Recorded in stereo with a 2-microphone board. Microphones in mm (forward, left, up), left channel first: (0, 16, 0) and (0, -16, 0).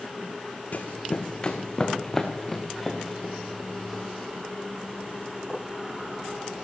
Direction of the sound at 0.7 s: 50° left (ahead or behind).